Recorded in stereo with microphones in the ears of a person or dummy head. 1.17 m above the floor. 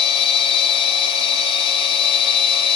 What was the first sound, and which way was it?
A machine running, 35° left (ahead or behind).